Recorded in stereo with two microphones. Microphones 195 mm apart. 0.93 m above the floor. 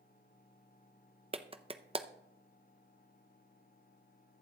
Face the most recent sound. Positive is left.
turn(degrees=-30)  # may be behind; listen again after turning